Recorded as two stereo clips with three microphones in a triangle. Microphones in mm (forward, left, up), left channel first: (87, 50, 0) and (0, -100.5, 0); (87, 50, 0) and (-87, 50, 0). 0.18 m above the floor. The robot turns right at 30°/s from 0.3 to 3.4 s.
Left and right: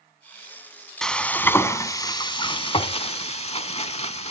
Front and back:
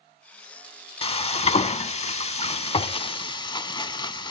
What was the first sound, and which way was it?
Frying, 25° right.